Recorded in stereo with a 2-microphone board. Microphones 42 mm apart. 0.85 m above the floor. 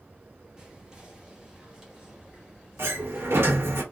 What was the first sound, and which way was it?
Whispering, 20° right (ahead or behind).